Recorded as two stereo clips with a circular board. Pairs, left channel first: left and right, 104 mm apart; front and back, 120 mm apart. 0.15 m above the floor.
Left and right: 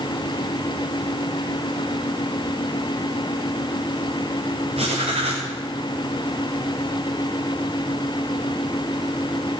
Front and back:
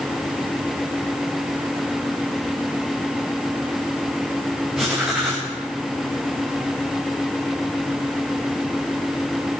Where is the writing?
95° right, 5.5 m.